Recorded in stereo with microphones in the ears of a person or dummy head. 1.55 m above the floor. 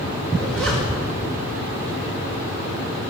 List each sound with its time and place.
0.3 s a zipper: centre (ahead or behind), 5 m